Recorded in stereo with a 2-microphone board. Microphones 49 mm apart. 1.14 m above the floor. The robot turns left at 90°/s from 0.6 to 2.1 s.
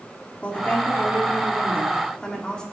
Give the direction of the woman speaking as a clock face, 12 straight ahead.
7 o'clock.